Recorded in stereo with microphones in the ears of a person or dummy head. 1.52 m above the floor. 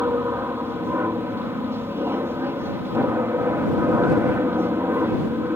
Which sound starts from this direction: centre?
An aircraft, at 0.0 s.